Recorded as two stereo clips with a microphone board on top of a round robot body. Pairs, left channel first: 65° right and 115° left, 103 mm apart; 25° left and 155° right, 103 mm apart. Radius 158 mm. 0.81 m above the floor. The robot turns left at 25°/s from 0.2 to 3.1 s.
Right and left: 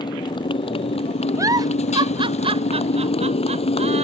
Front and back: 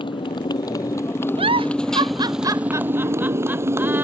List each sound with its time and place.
0.0 s a motorcycle: 20° right; by 4.0 s 95° right
1.4 s a giggle: 175° left; by 4.0 s 130° left